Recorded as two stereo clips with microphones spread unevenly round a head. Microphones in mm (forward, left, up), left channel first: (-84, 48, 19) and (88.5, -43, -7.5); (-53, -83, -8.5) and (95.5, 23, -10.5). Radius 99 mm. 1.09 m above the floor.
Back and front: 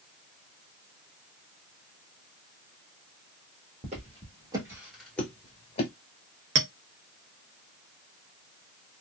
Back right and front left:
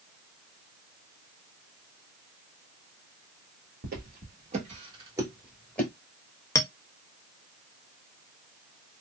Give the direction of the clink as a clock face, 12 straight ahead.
2 o'clock.